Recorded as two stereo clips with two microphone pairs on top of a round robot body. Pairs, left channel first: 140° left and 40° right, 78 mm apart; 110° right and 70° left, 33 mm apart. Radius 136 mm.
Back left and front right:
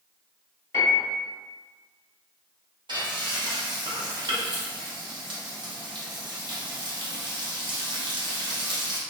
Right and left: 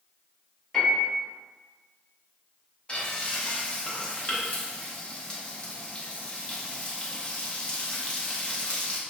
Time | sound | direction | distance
0.7 | a piano | 175° right | 1.7 m
2.9 | frying | 45° right | 1.0 m